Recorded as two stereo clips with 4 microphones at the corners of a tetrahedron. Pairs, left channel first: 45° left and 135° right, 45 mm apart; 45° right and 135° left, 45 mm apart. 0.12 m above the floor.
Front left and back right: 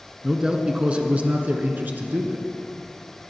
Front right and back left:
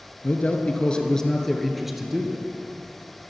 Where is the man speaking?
60° right, 1.5 m; by 2.5 s 155° right, 1.8 m.